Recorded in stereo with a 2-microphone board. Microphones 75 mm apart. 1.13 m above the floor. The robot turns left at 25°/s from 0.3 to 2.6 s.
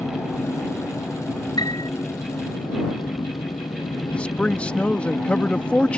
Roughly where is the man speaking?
Centre.